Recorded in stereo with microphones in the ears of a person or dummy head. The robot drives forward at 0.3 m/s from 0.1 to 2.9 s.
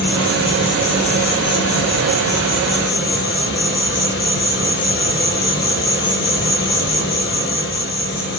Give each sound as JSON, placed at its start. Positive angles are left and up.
{"t": 0.0, "sound": "an insect", "side_deg": 65, "distance_m": 6.0}